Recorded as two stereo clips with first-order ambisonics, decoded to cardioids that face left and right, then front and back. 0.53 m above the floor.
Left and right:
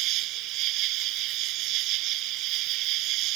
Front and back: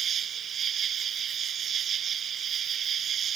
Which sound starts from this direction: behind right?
An insect, at 0.0 s.